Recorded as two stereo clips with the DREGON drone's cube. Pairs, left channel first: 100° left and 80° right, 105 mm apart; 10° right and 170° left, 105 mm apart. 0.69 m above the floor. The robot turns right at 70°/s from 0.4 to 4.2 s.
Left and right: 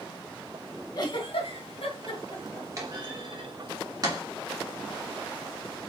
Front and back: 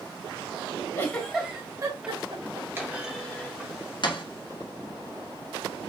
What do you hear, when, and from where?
0.9 s a giggle: 50° left, 2.5 m; by 2.7 s 175° left, 2.5 m
2.8 s a clunk: 125° right, 1.9 m; by 4.2 s 25° right, 1.9 m